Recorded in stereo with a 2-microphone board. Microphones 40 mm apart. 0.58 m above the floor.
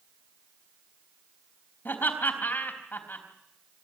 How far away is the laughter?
About 4 m.